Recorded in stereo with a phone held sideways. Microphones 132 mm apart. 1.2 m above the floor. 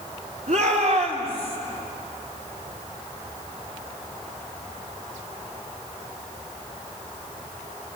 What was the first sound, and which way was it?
A shout, 70° right (ahead or behind).